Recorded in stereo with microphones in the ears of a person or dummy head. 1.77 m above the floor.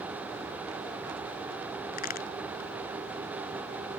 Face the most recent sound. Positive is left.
turn(degrees=45)  # may be behind; listen again after turning